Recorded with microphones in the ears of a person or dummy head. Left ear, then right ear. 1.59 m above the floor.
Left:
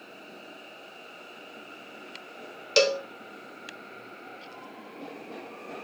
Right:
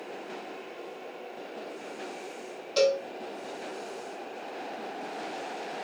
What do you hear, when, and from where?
2.8 s a cowbell: 65° left (ahead or behind), 1.2 m